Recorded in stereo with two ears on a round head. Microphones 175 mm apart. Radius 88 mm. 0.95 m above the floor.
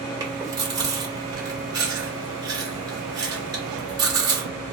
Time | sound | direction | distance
0.2 | chewing | 20° right (ahead or behind) | 1.5 m